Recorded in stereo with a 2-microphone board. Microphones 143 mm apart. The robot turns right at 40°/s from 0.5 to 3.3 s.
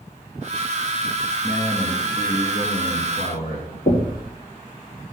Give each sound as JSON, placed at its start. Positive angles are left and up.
{"t": 1.4, "sound": "a man speaking", "azimuth_deg": 20, "distance_m": 2.5}
{"t": 3.9, "sound": "knocking", "side_deg": 65, "distance_m": 2.5}